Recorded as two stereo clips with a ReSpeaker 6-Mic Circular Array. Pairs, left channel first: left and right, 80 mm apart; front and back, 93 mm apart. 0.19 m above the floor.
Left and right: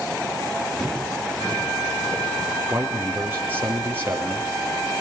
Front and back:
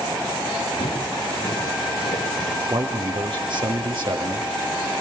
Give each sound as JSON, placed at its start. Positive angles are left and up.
{"t": 0.8, "sound": "footsteps", "azimuth_deg": 5, "distance_m": 9.0}
{"t": 2.7, "sound": "a man speaking", "azimuth_deg": -155, "distance_m": 5.5}